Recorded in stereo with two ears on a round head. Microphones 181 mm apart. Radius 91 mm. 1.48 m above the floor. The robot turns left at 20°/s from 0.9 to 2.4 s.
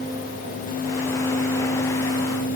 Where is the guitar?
I don't hear a guitar.